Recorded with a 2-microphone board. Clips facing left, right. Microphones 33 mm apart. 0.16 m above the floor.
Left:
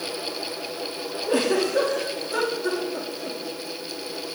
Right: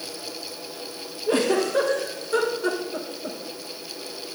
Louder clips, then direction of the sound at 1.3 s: Right 1 dB; 55° right (ahead or behind).